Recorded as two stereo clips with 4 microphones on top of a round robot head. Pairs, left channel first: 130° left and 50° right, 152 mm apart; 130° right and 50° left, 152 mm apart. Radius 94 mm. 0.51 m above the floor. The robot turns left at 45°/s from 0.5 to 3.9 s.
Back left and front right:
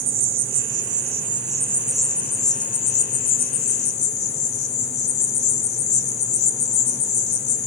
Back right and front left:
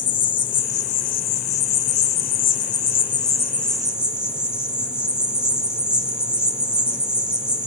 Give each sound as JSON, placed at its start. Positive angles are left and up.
{"t": 0.0, "sound": "an insect", "azimuth_deg": -70, "distance_m": 1.0}